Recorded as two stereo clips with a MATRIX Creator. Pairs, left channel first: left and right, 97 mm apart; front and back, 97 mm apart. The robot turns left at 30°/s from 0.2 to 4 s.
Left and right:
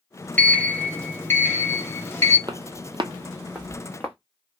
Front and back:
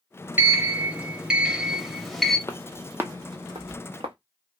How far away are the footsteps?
About 0.6 m.